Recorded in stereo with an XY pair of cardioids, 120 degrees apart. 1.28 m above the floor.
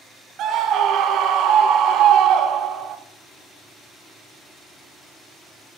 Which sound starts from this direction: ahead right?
A scream, at 0.4 s.